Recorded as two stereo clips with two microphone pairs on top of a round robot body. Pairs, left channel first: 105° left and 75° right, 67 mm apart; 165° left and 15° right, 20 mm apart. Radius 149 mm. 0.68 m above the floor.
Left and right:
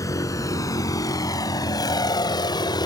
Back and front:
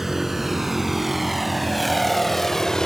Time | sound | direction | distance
0.0 | a vehicle | 65° left | ?